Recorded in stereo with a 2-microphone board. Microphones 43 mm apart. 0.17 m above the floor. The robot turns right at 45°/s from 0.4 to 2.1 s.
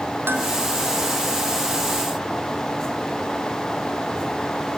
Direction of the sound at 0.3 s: 60° right (ahead or behind).